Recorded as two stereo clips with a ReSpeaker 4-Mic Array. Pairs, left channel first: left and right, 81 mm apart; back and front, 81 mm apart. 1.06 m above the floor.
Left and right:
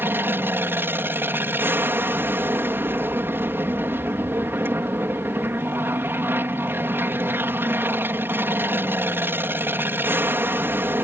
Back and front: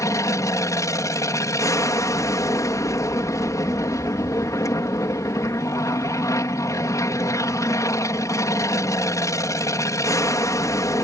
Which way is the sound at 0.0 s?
145° right.